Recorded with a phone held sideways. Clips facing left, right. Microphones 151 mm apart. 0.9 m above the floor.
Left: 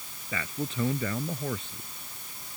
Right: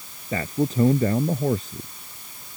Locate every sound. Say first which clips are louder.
0.3 s a man speaking: right 10 dB; 35° right (ahead or behind)